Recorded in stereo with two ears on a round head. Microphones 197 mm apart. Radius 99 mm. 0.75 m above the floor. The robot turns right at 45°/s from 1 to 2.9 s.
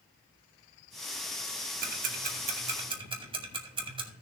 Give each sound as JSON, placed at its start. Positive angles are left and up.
{"t": 1.8, "sound": "ticking", "side_deg": -40, "distance_m": 1.4}